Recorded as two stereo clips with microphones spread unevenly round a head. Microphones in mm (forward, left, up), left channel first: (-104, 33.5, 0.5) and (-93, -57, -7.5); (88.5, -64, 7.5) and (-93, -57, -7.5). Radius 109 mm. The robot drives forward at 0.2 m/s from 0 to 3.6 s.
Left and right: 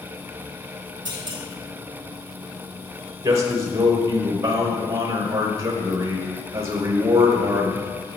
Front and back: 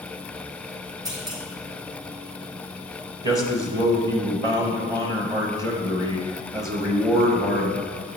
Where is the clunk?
115° right, 2.5 m.